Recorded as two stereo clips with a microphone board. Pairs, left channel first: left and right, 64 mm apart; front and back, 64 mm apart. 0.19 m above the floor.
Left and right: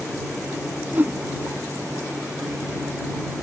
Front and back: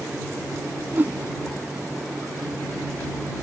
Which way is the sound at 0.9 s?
135° right.